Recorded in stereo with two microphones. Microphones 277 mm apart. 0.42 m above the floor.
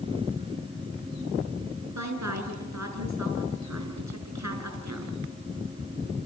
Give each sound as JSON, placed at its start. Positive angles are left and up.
{"t": 1.9, "sound": "a woman speaking", "side_deg": -80, "distance_m": 5.5}